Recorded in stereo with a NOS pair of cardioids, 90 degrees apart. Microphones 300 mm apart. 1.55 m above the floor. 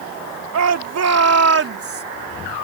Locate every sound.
0.5 s a shout: 60° right; by 2.0 s 45° right